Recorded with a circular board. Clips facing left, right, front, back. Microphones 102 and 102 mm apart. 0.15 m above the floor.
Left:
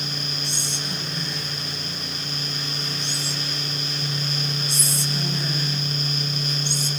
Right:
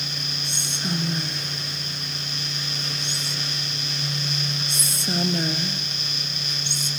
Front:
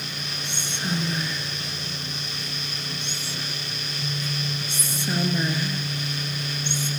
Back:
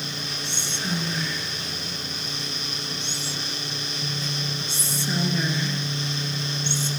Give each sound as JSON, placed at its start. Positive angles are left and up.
{"t": 0.4, "sound": "whispering", "azimuth_deg": -75, "distance_m": 2.5}